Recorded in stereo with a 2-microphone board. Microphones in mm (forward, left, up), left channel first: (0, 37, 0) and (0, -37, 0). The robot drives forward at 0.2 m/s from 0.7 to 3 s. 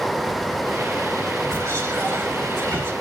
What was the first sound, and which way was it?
Whispering, 35° right (ahead or behind).